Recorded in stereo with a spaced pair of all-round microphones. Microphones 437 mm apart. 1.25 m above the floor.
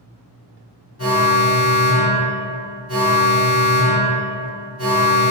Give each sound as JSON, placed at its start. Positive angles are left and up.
{"t": 1.0, "sound": "an alarm", "side_deg": 35, "distance_m": 1.1}